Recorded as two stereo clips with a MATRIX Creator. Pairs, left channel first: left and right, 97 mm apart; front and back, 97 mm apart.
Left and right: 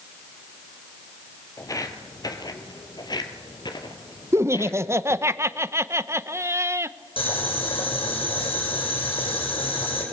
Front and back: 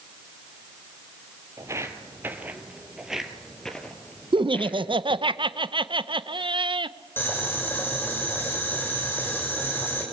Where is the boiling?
65° left, 6.5 m.